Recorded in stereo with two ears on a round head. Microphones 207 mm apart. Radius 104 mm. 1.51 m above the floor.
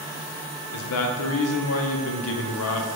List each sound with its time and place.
0.7 s a man speaking: 70° left (ahead or behind), 0.7 m